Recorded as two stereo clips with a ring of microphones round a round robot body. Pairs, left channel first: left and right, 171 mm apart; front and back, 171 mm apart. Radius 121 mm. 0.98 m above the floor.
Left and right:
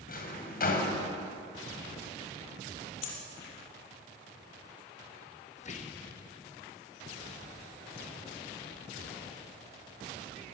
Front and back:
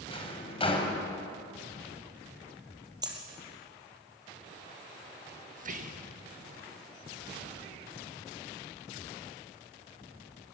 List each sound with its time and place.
0.1 s a drawer: 55° left, 3.5 m
3.0 s a dropped coin: 115° left, 4.5 m
5.6 s whispering: 145° left, 1.4 m